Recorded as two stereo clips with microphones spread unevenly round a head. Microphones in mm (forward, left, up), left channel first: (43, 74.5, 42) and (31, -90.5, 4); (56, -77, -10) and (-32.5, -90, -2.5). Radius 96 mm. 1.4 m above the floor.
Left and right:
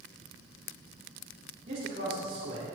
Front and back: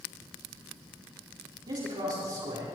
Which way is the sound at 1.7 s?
150° right.